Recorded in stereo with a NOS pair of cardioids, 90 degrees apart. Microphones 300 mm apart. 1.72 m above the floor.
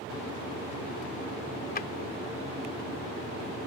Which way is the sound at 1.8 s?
30° left.